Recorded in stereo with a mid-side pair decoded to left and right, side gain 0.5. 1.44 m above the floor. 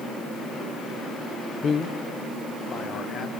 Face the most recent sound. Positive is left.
turn(degrees=55)